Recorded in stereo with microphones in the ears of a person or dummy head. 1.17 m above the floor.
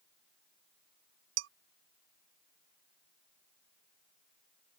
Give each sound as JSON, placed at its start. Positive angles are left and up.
{"t": 1.4, "sound": "dishes clattering", "side_deg": -80}